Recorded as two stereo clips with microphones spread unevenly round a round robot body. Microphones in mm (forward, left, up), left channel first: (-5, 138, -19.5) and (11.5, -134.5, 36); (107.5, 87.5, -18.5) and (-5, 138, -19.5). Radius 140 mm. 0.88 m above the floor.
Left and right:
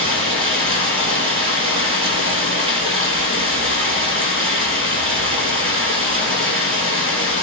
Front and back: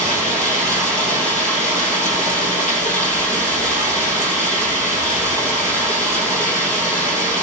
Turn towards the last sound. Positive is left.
turn(degrees=-20)